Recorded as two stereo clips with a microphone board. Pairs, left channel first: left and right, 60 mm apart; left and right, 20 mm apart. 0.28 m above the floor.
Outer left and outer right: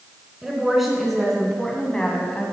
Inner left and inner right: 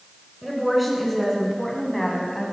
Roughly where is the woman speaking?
Centre.